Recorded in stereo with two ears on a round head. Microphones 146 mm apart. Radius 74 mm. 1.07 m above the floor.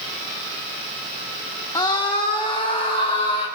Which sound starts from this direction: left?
A scream, at 1.8 s.